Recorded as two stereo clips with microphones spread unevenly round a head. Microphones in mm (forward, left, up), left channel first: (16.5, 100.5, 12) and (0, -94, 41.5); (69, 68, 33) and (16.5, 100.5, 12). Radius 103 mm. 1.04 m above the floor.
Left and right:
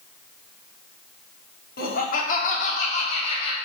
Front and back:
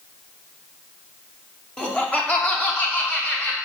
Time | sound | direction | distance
1.8 | laughter | 45° left | 3 m